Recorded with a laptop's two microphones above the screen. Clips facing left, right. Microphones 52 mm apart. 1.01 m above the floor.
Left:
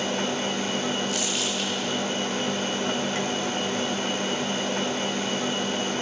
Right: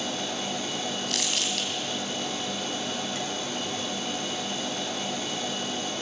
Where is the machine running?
50° left (ahead or behind), 2.0 m.